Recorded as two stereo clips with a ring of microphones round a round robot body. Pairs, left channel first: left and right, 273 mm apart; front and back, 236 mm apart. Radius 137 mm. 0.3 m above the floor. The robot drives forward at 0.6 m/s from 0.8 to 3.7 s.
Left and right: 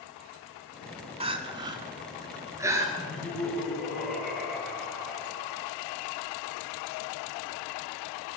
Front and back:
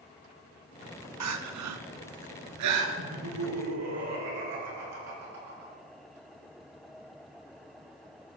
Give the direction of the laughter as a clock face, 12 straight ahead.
6 o'clock.